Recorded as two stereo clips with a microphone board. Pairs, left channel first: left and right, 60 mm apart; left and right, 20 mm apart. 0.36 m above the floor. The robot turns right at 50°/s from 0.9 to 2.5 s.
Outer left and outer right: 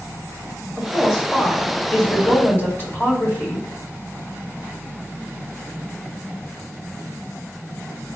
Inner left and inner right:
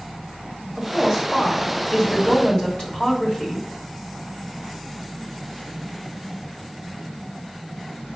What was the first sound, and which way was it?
A woman speaking, 20° right.